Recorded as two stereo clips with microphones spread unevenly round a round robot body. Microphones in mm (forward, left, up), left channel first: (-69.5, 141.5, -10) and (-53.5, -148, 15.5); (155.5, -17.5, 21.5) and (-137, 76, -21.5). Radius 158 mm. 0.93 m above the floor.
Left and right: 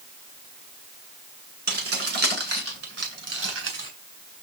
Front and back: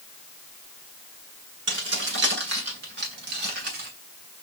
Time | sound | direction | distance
1.7 | keys jangling | 140° right | 9 m